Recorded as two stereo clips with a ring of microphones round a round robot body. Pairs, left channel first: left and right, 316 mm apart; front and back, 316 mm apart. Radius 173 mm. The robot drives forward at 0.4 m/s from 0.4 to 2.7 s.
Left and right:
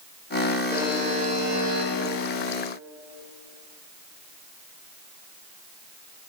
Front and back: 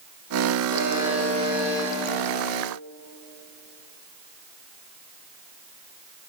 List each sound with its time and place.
0.7 s a buzzer: 20° right, 7.5 m; by 1.9 s 25° right, 7 m